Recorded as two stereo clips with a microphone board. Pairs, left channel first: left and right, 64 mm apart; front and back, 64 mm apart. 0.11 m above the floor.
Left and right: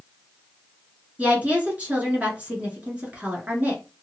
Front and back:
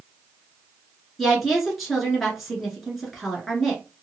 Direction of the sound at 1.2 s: 90° right.